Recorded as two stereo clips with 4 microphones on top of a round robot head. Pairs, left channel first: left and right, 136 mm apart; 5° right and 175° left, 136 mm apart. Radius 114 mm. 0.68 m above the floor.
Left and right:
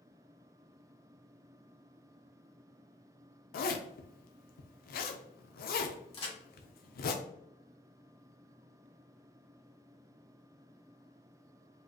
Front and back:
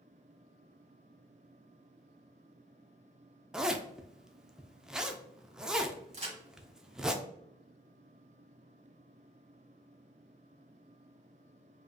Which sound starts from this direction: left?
A zipper, at 3.5 s.